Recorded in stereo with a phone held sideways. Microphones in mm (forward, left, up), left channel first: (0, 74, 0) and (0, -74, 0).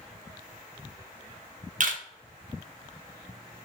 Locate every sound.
1.8 s a camera shutter: 60° right (ahead or behind), 0.6 m